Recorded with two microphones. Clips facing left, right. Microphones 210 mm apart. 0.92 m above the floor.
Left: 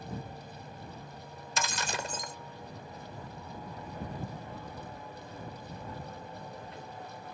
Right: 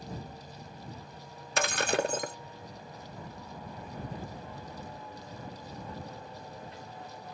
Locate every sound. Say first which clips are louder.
1.6 s breaking glass: right 8 dB; 60° right (ahead or behind)